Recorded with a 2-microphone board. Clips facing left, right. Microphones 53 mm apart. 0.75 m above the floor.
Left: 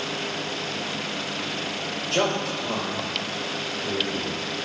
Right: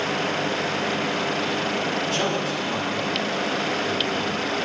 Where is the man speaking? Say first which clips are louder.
Even; 75° left (ahead or behind), 4 m.